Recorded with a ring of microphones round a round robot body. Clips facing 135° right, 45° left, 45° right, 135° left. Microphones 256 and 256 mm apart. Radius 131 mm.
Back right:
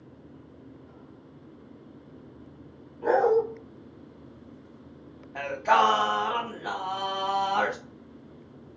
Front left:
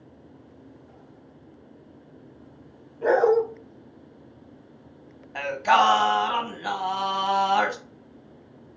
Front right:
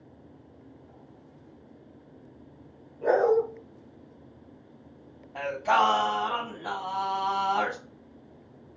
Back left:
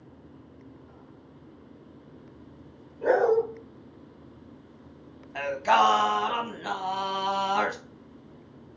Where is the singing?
80° left, 1.1 m.